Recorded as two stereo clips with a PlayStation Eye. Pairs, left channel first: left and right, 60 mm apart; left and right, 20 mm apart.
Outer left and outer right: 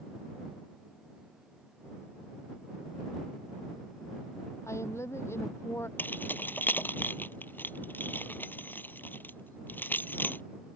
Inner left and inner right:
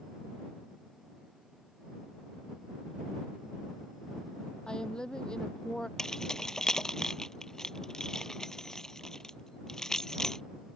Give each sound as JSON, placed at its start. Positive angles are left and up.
{"t": 4.7, "sound": "a woman speaking", "side_deg": 50}
{"t": 6.0, "sound": "keys jangling", "side_deg": 30}